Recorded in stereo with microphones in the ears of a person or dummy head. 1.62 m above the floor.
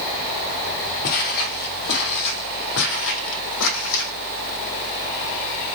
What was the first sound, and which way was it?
Footsteps, 50° left (ahead or behind).